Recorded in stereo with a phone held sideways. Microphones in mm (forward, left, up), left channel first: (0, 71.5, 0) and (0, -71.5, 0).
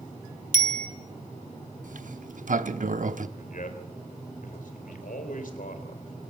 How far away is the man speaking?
About 3.5 m.